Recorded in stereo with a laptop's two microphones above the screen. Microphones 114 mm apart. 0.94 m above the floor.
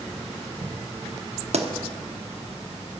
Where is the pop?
70° right (ahead or behind), 1.2 m.